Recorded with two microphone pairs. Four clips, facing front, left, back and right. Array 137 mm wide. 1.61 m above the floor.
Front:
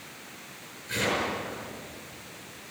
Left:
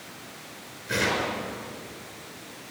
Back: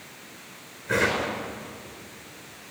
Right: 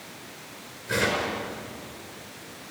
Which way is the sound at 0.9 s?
170° right.